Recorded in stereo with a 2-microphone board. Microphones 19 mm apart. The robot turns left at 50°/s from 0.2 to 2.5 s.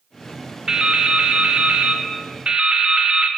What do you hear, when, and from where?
0.7 s dripping: 35° right, 0.8 m; by 3.3 s 125° right, 0.8 m